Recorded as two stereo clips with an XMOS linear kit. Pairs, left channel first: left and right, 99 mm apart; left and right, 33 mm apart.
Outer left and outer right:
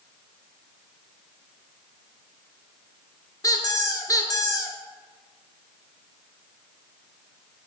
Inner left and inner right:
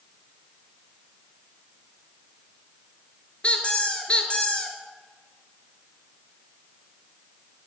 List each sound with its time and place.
3.4 s a squeak: 35° left (ahead or behind), 0.6 m